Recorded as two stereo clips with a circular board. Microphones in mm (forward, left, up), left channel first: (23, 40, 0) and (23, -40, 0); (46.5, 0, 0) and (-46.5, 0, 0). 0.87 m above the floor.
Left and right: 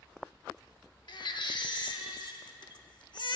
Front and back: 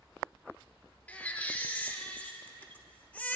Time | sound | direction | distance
1.1 | a baby crying | 70° left | 0.8 m